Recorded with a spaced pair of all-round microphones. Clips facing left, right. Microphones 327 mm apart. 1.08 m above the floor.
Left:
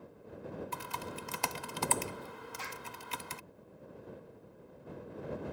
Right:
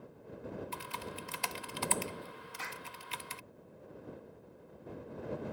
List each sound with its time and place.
0.7 s typing on a keyboard: 60° left (ahead or behind)
2.6 s a clap: 65° right (ahead or behind)